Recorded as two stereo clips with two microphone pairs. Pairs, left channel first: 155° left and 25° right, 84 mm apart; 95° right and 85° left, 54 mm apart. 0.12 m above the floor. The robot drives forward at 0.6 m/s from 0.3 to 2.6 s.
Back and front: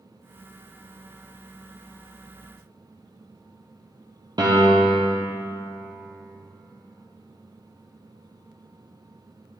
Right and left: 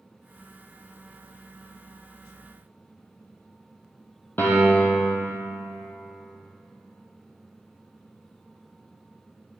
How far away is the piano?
About 1.5 m.